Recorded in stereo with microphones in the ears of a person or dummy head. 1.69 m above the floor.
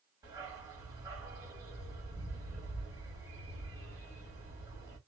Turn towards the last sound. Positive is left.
turn(degrees=-25)  # may be behind; listen again after turning